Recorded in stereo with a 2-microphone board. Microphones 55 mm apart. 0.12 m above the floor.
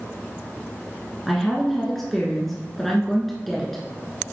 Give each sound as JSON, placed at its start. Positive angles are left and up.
{"t": 1.3, "sound": "a woman speaking", "side_deg": 5, "distance_m": 1.3}